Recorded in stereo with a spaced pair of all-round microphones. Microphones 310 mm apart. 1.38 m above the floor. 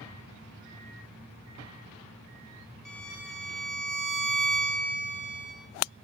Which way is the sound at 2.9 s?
85° left.